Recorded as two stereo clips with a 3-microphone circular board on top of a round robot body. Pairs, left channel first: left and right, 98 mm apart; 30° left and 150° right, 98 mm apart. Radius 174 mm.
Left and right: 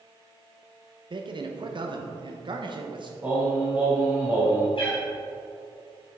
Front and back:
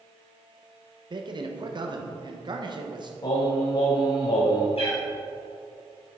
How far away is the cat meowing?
About 2.5 m.